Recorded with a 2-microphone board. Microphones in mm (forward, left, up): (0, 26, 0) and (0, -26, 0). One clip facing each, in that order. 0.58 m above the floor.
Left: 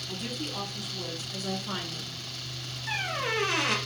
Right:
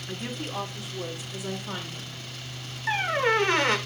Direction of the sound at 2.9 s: 35° right (ahead or behind).